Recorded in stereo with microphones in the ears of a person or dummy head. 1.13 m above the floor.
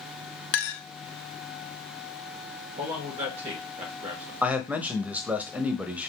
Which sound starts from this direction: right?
A man speaking, at 2.8 s.